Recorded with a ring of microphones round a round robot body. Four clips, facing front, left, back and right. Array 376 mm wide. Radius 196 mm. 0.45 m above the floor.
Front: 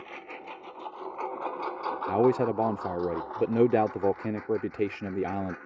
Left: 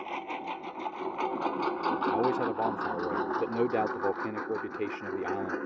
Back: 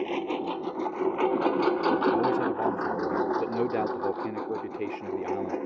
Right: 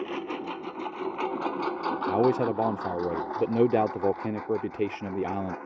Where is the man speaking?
50° right.